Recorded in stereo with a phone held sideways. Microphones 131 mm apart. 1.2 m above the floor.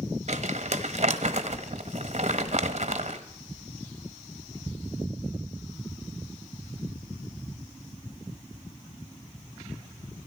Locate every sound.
0.3 s crumpling: 55° right (ahead or behind), 1.2 m